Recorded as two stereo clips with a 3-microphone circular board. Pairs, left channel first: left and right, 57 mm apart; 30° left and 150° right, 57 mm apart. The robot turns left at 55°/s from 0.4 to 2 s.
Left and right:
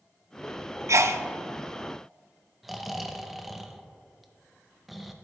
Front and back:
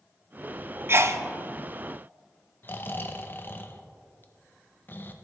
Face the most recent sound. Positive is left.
turn(degrees=-5)